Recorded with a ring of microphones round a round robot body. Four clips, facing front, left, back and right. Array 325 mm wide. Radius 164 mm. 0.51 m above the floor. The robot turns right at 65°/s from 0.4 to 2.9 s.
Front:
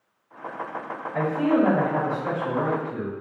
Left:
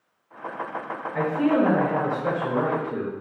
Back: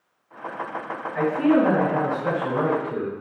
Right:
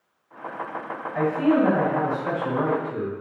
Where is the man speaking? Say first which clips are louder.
Right 1 dB, back 2 dB; 25° left, 2 m; by 3.1 s 135° left, 2 m.